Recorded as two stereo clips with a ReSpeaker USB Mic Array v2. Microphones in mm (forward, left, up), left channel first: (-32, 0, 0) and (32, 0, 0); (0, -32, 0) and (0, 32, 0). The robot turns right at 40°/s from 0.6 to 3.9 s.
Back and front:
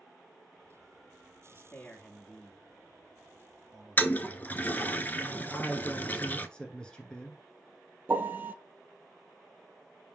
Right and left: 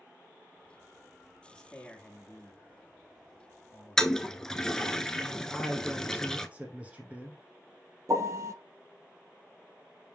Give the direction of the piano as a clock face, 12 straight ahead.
10 o'clock.